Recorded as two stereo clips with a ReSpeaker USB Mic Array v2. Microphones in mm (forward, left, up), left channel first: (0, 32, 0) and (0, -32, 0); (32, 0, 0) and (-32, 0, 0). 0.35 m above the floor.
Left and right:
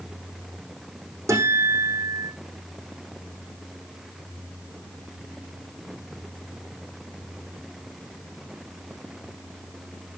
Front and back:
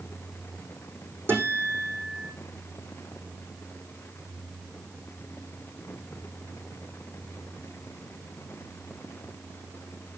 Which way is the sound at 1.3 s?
125° right.